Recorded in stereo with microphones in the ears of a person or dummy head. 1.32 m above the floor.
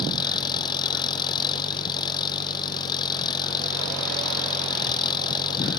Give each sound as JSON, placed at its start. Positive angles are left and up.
{"t": 0.0, "sound": "an engine running", "side_deg": 20}